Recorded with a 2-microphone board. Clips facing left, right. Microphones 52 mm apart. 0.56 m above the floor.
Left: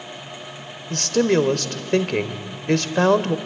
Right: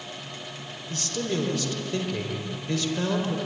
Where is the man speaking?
65° left (ahead or behind), 1.7 m.